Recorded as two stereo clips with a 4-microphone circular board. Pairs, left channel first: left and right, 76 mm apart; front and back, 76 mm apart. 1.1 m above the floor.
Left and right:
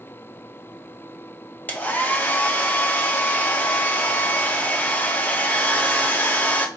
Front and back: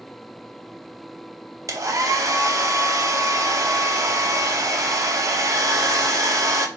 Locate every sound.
1.7 s a hair dryer: 150° left, 0.6 m